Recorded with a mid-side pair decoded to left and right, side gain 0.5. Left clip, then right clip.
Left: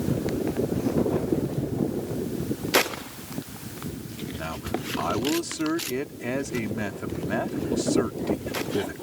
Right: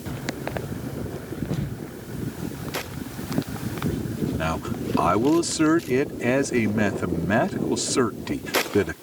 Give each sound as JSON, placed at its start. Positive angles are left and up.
{"t": 4.4, "sound": "a man speaking", "azimuth_deg": -50}